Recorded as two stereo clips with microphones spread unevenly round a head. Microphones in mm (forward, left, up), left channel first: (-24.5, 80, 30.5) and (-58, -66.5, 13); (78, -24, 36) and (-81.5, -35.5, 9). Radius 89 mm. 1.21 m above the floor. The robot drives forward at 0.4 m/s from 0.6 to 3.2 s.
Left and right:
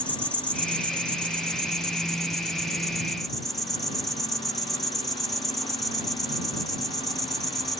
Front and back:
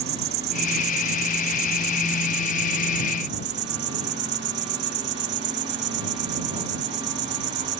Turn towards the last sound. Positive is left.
turn(degrees=165)